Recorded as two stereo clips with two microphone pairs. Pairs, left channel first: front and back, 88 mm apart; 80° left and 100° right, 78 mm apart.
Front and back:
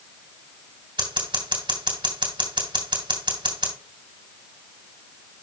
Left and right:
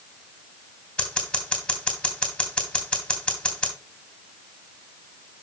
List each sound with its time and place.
1.0 s scissors: 160° left, 2.5 m